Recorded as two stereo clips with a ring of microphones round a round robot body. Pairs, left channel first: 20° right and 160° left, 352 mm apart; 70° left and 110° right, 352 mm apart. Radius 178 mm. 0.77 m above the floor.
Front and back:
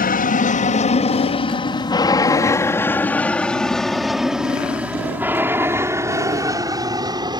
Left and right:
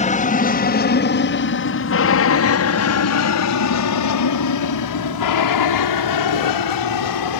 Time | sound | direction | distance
0.0 | an aircraft | 15° left | ?